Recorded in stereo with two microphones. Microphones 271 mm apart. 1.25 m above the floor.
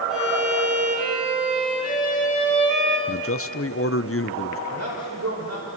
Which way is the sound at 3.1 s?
55° left (ahead or behind).